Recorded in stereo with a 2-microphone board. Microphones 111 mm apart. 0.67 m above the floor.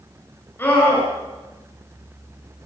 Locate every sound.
0.6 s a scream: 20° left (ahead or behind), 8.5 m